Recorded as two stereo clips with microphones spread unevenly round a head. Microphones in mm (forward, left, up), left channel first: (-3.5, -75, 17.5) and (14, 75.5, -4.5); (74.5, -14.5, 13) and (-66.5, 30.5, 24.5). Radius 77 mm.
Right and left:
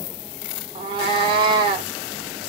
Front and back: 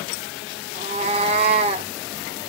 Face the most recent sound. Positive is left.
turn(degrees=140)